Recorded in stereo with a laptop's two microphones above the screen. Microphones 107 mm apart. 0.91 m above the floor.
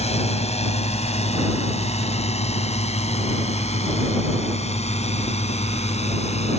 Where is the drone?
80° left; by 6.6 s 85° left.